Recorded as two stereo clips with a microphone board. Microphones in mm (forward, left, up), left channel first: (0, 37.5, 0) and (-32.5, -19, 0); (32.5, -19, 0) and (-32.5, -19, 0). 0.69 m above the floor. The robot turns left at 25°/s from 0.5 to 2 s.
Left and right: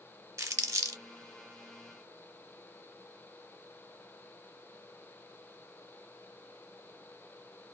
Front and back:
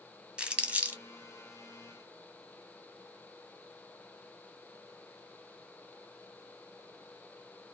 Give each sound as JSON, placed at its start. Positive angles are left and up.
{"t": 0.4, "sound": "crumpling", "azimuth_deg": -110, "distance_m": 0.7}